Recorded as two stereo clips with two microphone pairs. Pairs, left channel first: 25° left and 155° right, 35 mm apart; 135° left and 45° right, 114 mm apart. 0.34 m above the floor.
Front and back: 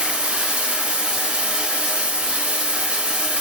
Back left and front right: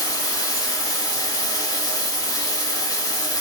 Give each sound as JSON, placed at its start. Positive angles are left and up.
{"t": 0.0, "sound": "running water", "azimuth_deg": 165, "distance_m": 0.9}